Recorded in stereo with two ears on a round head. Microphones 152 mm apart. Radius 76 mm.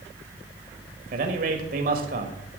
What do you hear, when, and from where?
1.1 s a man speaking: 55° right (ahead or behind), 1.5 m